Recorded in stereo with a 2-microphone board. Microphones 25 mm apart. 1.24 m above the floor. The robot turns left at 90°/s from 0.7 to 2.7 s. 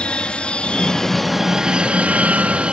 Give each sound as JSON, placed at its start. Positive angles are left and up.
{"t": 0.0, "sound": "an aircraft", "azimuth_deg": 50}